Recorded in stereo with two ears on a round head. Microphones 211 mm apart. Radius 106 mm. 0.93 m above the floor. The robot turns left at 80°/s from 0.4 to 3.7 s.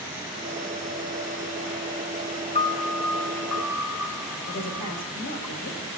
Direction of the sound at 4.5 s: 65° left (ahead or behind).